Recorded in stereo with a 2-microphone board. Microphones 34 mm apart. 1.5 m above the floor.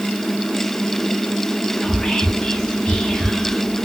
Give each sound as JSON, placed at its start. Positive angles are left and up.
{"t": 1.8, "sound": "whispering", "side_deg": 10, "distance_m": 0.6}